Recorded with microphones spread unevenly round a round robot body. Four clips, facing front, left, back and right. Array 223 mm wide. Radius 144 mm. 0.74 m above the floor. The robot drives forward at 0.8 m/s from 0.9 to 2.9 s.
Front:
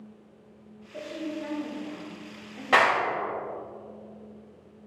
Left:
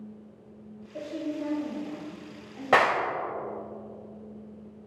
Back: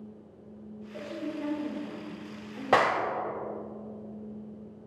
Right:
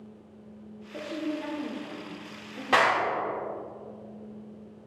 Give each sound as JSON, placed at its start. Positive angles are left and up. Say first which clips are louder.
{"t": 0.9, "sound": "a woman speaking", "louder": "even, front 2 dB", "azimuth_deg": -85, "distance_m": 1.7}
{"t": 2.7, "sound": "a clap", "louder": "left 1 dB, front 2 dB", "azimuth_deg": 150, "distance_m": 1.1}